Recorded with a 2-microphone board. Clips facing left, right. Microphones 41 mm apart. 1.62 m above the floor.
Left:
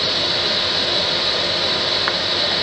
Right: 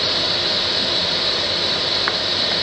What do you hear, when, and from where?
Only background noise.